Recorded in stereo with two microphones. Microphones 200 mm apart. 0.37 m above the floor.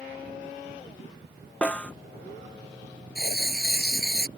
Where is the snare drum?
5° left (ahead or behind).